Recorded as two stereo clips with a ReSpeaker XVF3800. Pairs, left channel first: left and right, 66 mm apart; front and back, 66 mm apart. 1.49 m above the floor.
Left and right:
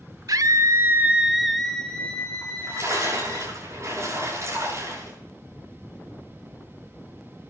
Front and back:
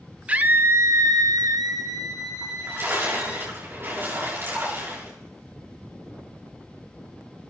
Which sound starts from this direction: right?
A scream, at 0.3 s.